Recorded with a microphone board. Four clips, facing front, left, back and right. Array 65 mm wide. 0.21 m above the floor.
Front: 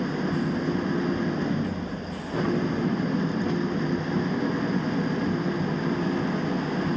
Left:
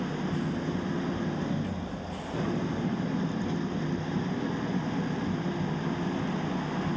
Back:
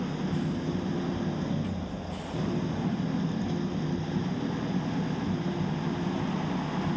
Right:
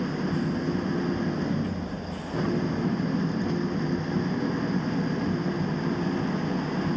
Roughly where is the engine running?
Ahead right.